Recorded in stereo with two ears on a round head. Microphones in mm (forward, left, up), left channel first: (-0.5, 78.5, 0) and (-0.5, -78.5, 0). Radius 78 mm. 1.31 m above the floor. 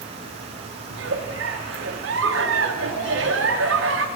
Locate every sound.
0.9 s a giggle: 75° right (ahead or behind), 0.7 m